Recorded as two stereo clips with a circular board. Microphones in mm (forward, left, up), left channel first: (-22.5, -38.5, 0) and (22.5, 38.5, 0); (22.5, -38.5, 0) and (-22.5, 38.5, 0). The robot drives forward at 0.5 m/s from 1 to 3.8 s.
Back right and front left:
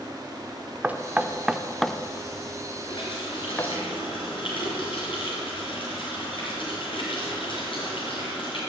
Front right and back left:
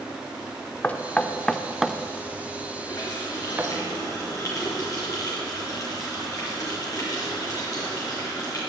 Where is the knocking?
Straight ahead, 0.6 m; by 3.7 s straight behind, 1.1 m.